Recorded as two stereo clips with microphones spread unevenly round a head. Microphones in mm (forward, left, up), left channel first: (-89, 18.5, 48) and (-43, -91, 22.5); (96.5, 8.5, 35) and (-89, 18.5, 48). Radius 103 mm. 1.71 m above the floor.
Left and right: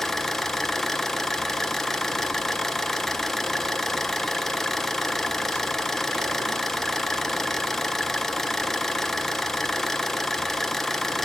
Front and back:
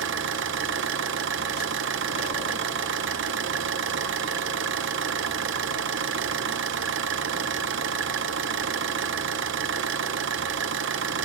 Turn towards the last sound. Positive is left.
turn(degrees=-170)